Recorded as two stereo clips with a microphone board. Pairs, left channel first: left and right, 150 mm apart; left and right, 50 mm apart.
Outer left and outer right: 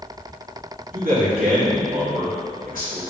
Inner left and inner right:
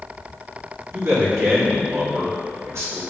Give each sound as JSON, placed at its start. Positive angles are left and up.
{"t": 0.9, "sound": "a man speaking", "side_deg": -70, "distance_m": 3.5}